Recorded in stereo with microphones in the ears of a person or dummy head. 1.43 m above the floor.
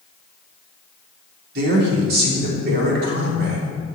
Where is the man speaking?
55° right (ahead or behind), 3.5 m.